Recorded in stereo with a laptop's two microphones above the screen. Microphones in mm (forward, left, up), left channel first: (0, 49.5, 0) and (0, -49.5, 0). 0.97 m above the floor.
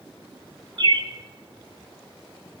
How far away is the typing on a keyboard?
I don't hear typing on a keyboard.